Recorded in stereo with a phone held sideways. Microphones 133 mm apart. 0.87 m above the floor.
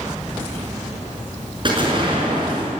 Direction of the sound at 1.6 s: 40° right (ahead or behind).